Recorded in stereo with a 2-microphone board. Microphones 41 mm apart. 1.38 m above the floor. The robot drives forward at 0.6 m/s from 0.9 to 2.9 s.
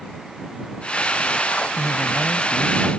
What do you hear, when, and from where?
1.7 s a man speaking: 15° left (ahead or behind); by 2.9 s 20° left (ahead or behind)